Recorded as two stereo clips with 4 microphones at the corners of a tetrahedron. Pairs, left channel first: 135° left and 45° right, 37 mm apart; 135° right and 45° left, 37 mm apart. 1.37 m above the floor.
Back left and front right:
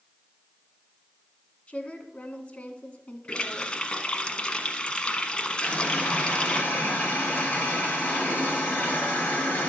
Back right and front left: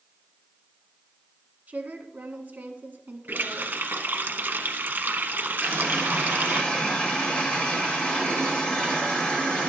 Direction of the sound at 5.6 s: 165° left.